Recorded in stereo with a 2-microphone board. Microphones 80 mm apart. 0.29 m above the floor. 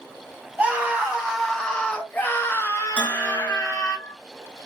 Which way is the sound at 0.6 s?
15° right (ahead or behind).